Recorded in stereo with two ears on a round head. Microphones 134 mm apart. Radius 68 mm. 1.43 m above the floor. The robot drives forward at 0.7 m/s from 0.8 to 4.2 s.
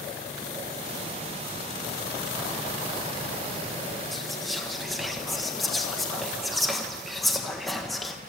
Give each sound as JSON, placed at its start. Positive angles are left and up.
{"t": 4.1, "sound": "whispering", "side_deg": 0, "distance_m": 1.3}